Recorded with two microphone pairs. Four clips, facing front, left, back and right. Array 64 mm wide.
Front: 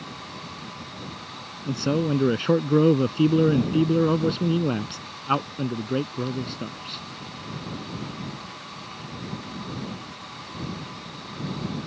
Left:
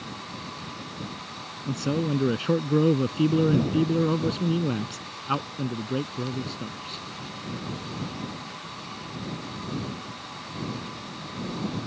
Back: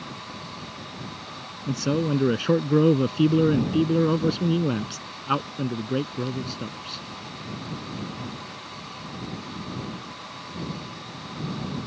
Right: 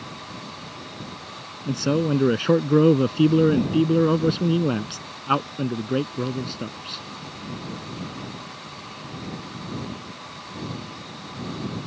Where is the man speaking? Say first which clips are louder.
Right 5 dB, even; 80° right.